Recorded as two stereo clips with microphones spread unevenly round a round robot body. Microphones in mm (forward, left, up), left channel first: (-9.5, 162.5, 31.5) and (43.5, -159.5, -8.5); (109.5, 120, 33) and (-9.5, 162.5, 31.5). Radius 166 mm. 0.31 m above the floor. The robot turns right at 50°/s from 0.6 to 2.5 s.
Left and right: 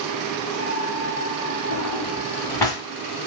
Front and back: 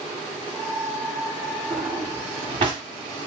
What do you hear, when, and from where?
1.7 s a drawer: 145° left, 0.8 m; by 2.8 s 175° right, 0.8 m